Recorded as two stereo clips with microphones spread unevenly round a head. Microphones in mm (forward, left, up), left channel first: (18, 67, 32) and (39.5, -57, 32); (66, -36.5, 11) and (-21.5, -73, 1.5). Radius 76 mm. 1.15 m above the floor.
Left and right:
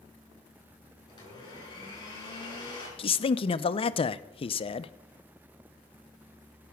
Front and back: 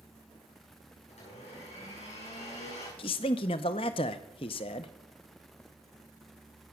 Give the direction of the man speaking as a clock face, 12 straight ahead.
10 o'clock.